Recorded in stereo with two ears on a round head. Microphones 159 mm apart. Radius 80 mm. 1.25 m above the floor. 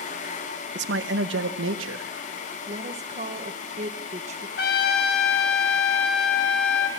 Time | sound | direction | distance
0.8 | a man speaking | 65° right (ahead or behind) | 0.9 m
2.7 | a woman speaking | 40° right (ahead or behind) | 1.4 m
4.6 | a trumpet | 60° left (ahead or behind) | 1.8 m